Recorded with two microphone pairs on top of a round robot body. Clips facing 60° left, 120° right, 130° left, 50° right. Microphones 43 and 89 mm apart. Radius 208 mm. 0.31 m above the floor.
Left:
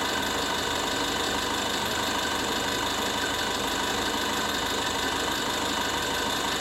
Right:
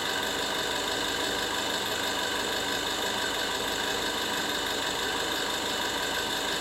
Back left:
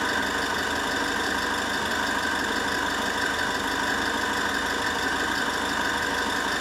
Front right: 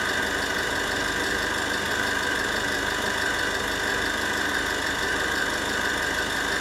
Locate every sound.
0.0 s an engine running: 95° left, 2 m